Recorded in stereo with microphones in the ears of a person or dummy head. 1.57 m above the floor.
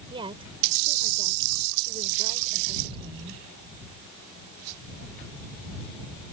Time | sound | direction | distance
0.1 | a woman speaking | 25° right (ahead or behind) | ?